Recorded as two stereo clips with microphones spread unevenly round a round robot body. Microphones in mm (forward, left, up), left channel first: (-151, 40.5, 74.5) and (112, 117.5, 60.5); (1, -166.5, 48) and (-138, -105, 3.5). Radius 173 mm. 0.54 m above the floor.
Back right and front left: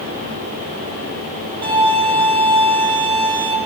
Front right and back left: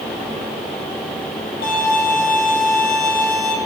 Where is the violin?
25° right, 5.5 m.